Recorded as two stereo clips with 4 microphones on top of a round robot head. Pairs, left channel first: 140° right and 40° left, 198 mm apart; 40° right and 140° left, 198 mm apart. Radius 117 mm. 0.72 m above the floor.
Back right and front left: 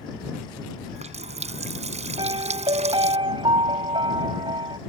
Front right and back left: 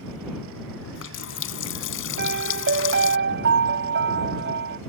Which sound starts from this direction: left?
A piano, at 2.2 s.